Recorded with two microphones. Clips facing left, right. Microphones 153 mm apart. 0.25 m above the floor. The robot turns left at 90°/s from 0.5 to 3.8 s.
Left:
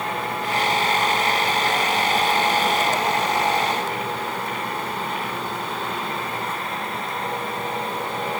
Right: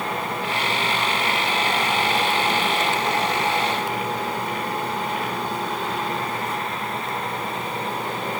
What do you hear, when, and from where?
Only background noise.